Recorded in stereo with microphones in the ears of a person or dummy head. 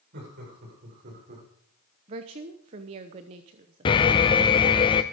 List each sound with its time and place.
0.1 s laughter: 50° right (ahead or behind), 6.5 m; by 1.5 s 45° right (ahead or behind), 5 m
2.1 s a woman speaking: 30° right (ahead or behind), 1.0 m
3.9 s an alarm: 30° left (ahead or behind), 0.9 m